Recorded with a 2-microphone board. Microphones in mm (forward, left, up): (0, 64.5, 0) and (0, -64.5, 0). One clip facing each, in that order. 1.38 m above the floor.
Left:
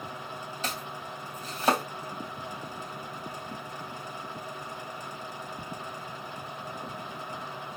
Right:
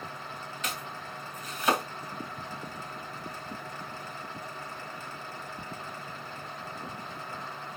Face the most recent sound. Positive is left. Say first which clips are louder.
# left 1 dB
turn(degrees=35)  # may be behind; listen again after turning